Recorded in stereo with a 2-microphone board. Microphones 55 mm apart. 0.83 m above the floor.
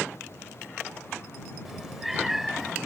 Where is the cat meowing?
5° right (ahead or behind).